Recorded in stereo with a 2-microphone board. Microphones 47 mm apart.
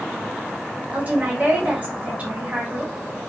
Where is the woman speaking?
35° right (ahead or behind), 1.3 m.